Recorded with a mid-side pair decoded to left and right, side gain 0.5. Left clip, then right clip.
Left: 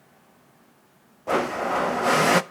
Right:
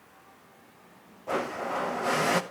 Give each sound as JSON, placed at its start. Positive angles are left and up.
{"t": 1.3, "sound": "a blender", "azimuth_deg": 40, "distance_m": 0.8}